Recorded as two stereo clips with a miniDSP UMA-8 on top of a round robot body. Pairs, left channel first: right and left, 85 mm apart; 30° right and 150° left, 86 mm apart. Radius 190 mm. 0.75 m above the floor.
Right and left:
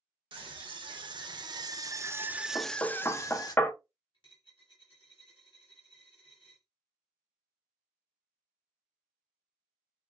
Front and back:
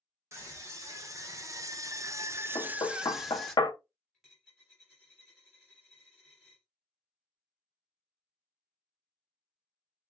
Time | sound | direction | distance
0.3 | a scream | 95° left | 1.4 m
2.5 | knocking | 35° right | 0.8 m
4.1 | a dropped coin | 130° right | 0.8 m